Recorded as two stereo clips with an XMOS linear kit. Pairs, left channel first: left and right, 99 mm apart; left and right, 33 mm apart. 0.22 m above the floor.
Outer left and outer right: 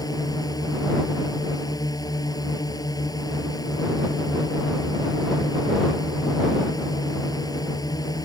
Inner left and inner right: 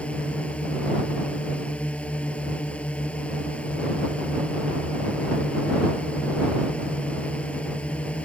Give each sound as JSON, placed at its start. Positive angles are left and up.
{"t": 0.0, "sound": "a drone", "side_deg": 40}